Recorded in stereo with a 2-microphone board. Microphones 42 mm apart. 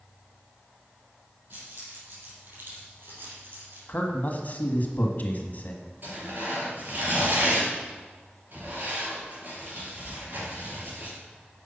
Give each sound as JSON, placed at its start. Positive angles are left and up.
{"t": 1.5, "sound": "keys jangling", "side_deg": -55, "distance_m": 4.5}
{"t": 3.9, "sound": "a man speaking", "side_deg": 40, "distance_m": 1.5}
{"t": 6.0, "sound": "tearing paper", "side_deg": -50, "distance_m": 4.5}